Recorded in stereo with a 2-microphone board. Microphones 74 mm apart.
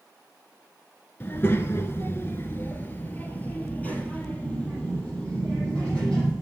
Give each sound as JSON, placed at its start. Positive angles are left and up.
{"t": 1.2, "sound": "a child speaking", "side_deg": 30, "distance_m": 0.8}